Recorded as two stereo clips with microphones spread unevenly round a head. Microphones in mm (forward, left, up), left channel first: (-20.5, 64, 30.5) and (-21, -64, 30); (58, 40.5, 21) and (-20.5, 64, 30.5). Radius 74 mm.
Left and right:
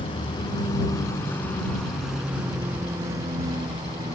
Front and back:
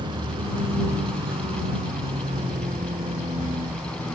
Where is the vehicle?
140° left; by 4.2 s 145° right.